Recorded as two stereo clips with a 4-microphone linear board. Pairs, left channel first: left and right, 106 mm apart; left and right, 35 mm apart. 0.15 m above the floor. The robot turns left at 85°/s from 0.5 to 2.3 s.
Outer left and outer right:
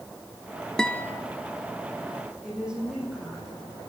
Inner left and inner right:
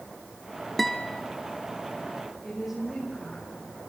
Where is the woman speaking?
10° right (ahead or behind), 7.5 m.